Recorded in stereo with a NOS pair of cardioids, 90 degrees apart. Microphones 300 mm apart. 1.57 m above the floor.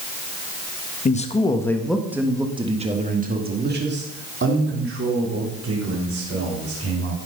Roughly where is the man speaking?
Ahead left.